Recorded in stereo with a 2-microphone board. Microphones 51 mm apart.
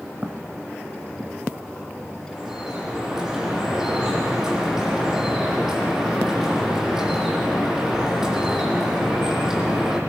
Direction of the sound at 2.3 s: 10° right (ahead or behind).